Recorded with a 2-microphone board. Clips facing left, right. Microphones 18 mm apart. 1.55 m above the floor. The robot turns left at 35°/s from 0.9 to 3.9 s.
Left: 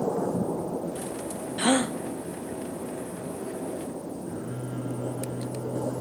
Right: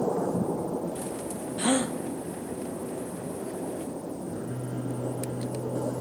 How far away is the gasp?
About 1.0 m.